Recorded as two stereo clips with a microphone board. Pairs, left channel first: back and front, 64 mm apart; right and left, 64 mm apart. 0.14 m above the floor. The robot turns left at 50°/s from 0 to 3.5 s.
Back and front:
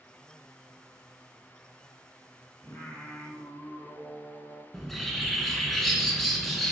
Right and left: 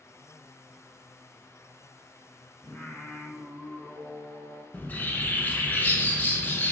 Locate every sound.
2.6 s singing: 130° right, 1.0 m; by 4.6 s 170° right, 1.0 m
4.7 s a bird: 95° right, 0.6 m